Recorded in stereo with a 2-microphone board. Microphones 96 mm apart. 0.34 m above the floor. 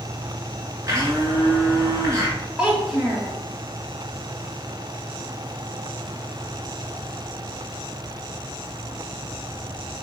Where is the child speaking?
10° right (ahead or behind), 1.5 m.